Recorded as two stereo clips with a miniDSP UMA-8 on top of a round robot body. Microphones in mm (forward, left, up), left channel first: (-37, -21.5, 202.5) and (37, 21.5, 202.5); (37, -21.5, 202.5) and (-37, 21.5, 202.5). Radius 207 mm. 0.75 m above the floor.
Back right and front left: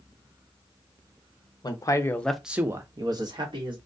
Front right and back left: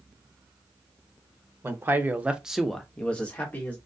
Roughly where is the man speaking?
Behind.